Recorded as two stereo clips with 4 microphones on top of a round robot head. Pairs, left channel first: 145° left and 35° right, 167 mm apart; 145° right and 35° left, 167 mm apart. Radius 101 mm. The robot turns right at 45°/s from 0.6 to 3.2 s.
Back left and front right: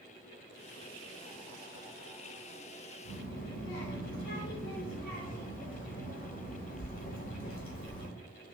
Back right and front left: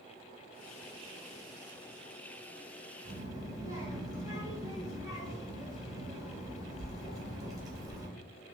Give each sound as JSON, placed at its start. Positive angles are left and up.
{"t": 3.0, "sound": "a child speaking", "azimuth_deg": 100, "distance_m": 0.9}